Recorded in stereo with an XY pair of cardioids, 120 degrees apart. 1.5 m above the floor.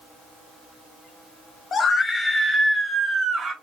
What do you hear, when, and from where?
1.7 s a scream: 45° left, 0.8 m; by 3.5 s 40° right, 1.1 m